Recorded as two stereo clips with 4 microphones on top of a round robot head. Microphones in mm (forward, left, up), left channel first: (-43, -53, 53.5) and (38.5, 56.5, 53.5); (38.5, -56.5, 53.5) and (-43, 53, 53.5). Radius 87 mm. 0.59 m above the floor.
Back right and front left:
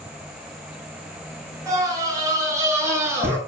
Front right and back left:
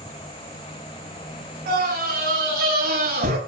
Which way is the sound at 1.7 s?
120° left.